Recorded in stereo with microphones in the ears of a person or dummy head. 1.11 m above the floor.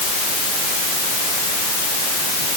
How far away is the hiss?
No hiss in this recording.